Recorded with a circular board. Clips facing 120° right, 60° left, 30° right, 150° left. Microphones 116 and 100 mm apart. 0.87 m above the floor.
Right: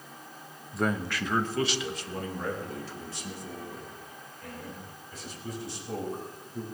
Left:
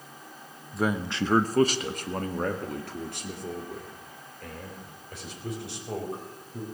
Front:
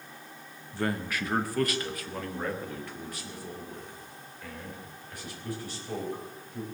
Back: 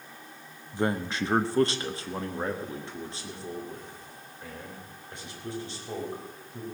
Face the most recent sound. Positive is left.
turn(degrees=85)